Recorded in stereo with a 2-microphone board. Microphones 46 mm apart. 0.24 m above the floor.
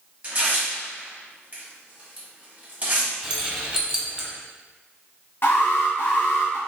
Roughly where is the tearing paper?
Right.